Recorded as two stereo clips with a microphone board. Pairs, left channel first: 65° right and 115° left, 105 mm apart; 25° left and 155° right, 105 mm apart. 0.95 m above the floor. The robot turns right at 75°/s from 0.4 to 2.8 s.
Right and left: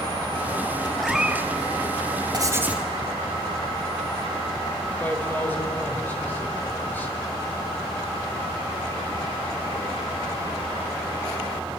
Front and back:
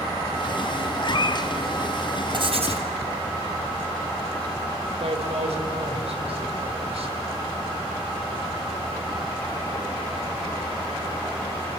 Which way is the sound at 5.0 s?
140° right.